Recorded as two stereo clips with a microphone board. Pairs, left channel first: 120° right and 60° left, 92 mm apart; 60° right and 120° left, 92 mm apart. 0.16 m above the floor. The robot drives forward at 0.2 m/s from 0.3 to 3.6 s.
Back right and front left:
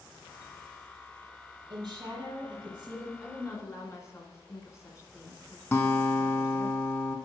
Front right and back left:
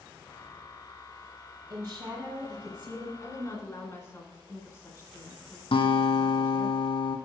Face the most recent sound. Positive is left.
turn(degrees=-55)